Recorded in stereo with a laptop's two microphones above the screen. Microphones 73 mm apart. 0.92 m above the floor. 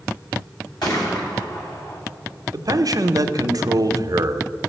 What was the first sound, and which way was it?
A gunshot, 70° left (ahead or behind).